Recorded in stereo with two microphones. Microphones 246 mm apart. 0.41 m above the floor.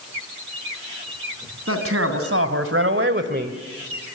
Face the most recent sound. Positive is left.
turn(degrees=-30)  # may be behind; listen again after turning